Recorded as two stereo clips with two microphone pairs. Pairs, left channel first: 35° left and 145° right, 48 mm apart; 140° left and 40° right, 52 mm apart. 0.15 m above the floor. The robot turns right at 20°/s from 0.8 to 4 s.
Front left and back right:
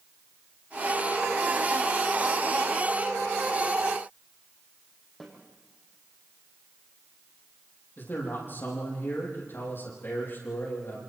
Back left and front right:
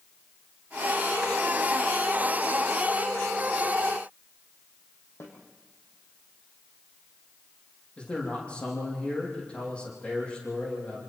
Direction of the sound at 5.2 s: 115° left.